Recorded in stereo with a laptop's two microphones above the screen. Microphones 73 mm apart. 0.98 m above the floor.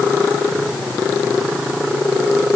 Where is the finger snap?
I don't hear a finger snap.